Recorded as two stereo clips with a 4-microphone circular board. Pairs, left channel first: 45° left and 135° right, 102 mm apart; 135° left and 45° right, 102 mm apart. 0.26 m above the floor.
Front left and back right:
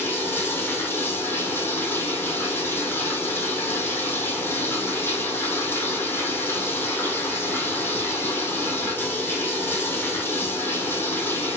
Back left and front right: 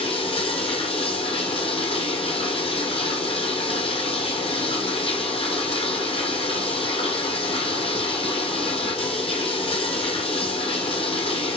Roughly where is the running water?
Behind left.